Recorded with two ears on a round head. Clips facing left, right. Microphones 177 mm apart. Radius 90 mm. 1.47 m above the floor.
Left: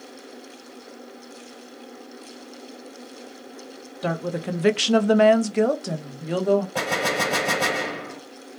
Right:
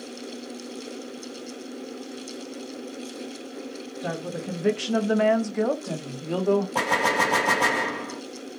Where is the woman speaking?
55° left (ahead or behind), 0.7 m; by 6.7 s 10° left (ahead or behind), 1.0 m.